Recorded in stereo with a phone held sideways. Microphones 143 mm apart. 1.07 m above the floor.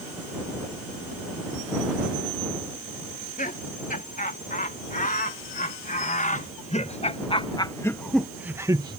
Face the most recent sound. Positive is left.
turn(degrees=-35)  # may be behind; listen again after turning